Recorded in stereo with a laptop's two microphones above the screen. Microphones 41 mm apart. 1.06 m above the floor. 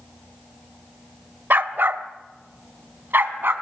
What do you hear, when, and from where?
1.5 s a dog barking: 55° right (ahead or behind), 1.1 m; by 3.5 s 60° right (ahead or behind), 2.5 m